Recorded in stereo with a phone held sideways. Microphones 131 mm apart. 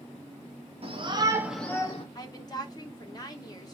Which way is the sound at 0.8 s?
50° right (ahead or behind).